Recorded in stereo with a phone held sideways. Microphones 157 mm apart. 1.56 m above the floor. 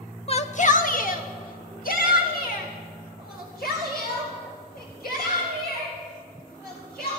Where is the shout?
40° left (ahead or behind), 0.8 m; by 7.2 s 75° left (ahead or behind), 9.5 m.